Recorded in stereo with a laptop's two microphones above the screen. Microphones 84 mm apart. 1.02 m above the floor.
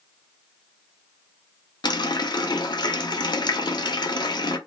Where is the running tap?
60° left (ahead or behind), 0.6 m.